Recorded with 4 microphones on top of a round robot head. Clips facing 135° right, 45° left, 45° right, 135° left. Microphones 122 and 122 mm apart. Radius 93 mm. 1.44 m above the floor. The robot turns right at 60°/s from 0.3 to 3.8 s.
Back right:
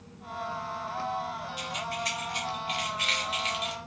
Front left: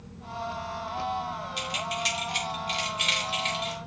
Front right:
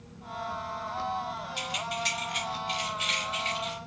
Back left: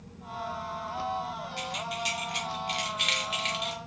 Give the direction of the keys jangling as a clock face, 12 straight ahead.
11 o'clock.